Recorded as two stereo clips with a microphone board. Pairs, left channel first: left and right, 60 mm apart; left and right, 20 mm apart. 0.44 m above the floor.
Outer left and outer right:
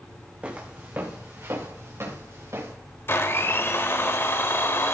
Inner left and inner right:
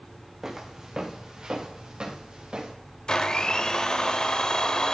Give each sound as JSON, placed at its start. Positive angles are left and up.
{"t": 0.4, "sound": "footsteps", "side_deg": -20, "distance_m": 1.9}
{"t": 3.1, "sound": "a blender", "side_deg": 40, "distance_m": 1.0}